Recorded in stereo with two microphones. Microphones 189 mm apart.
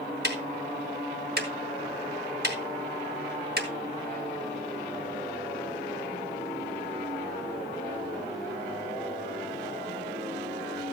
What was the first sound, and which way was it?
Ticking, 60° right (ahead or behind).